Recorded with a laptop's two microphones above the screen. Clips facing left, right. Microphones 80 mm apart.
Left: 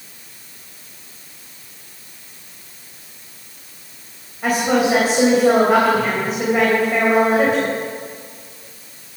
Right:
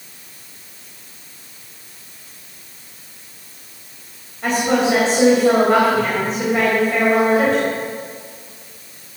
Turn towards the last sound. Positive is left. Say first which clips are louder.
# even
turn(degrees=10)  # may be behind; listen again after turning